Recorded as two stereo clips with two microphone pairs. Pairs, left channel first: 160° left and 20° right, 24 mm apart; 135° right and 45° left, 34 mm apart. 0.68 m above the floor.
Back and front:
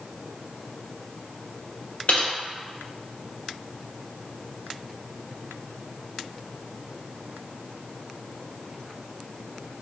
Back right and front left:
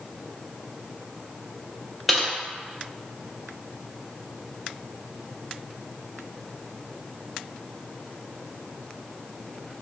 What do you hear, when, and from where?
2.1 s typing on a keyboard: 140° left, 0.5 m